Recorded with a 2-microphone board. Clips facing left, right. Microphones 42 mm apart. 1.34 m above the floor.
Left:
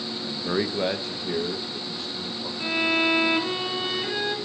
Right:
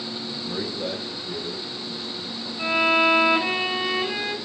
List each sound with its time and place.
0.2 s a man speaking: 60° left (ahead or behind), 0.6 m; by 2.5 s 80° left, 1.7 m
2.6 s a violin: 45° right (ahead or behind), 2.0 m